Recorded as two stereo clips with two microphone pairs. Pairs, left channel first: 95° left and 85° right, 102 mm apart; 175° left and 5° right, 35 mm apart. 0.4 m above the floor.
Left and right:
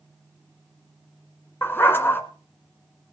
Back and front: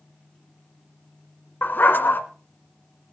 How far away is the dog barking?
About 1.7 m.